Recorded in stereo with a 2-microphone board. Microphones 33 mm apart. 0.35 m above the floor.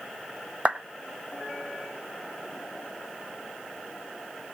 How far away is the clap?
About 1.4 m.